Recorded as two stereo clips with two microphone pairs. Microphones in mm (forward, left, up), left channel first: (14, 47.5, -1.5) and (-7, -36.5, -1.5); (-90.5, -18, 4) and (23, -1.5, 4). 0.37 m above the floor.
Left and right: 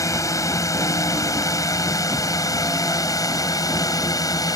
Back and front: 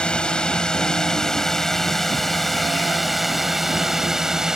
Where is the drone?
110° left; by 4.6 s 90° left.